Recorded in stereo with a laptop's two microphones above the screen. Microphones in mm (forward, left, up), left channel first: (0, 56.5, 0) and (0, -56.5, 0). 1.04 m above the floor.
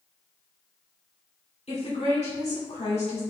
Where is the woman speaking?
80° left, 3 m.